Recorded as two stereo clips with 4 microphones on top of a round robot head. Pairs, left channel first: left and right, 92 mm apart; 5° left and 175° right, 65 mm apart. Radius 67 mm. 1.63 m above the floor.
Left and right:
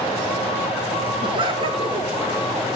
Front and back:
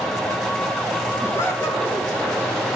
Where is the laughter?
60° right, 2 m.